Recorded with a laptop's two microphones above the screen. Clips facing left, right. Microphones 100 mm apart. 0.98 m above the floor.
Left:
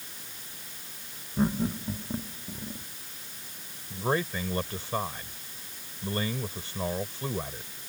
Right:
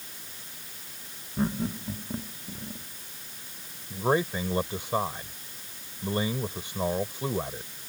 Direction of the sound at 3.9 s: 15° right (ahead or behind).